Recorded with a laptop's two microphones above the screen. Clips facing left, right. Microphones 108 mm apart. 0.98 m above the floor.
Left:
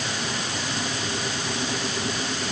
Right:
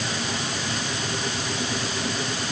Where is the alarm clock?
I don't hear an alarm clock.